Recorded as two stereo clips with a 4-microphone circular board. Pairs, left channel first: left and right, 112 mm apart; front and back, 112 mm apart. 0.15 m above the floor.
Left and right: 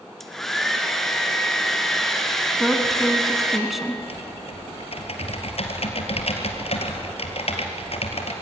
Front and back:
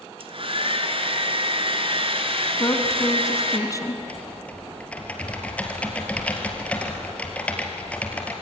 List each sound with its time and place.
0.2 s a hair dryer: 175° left, 2 m
2.6 s a woman speaking: 5° right, 1.8 m
4.0 s typing on a keyboard: 75° left, 3 m